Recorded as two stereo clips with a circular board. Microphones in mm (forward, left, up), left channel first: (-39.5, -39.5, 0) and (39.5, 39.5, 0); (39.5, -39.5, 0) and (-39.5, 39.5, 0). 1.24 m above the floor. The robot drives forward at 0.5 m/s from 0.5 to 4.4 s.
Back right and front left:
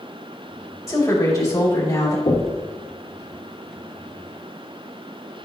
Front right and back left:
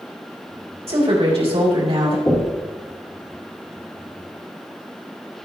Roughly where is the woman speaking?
Behind.